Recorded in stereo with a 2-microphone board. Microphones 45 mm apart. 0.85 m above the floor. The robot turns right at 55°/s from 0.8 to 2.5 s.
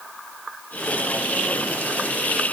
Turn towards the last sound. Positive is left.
No sound to turn to.